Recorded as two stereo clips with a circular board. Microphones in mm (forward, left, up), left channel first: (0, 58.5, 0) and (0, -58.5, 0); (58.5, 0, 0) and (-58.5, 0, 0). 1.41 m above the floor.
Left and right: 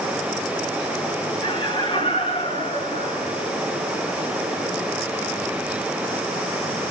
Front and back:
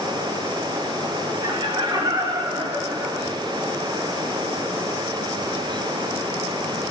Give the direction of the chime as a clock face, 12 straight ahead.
No chime in this recording.